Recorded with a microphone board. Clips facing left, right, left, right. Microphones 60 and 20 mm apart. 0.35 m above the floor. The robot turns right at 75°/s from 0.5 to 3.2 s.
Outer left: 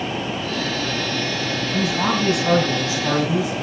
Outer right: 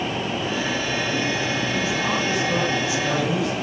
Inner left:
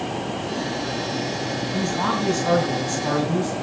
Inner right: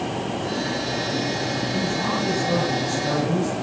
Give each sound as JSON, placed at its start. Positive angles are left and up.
{"t": 1.7, "sound": "a man speaking", "azimuth_deg": 50, "distance_m": 4.5}